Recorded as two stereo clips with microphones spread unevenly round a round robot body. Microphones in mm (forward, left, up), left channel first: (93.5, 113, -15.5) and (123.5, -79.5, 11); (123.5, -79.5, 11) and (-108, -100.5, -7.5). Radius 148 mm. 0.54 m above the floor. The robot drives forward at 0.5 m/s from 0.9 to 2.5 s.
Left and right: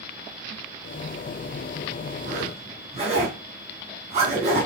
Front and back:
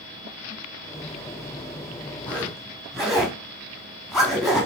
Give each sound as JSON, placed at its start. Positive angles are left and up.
{"t": 2.3, "sound": "a zipper", "azimuth_deg": -80, "distance_m": 0.8}